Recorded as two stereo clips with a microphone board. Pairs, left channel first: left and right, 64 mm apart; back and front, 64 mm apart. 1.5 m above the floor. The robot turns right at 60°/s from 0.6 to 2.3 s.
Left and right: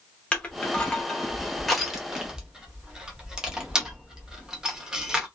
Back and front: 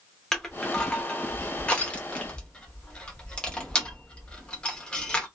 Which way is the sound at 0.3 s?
115° left.